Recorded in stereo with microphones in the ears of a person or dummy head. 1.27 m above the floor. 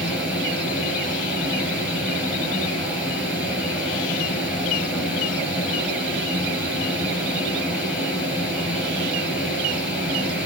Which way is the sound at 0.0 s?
5° right (ahead or behind).